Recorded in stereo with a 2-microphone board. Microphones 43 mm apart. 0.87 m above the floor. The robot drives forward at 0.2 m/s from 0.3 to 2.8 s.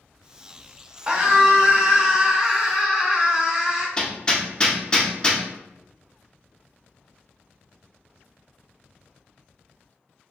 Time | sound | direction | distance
1.1 | a scream | 25° right (ahead or behind) | 0.8 m
4.0 | hammering | 20° left (ahead or behind) | 0.5 m